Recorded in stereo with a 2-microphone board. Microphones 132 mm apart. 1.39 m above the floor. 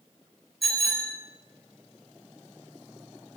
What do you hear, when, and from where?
0.6 s a bicycle bell: centre (ahead or behind), 4 m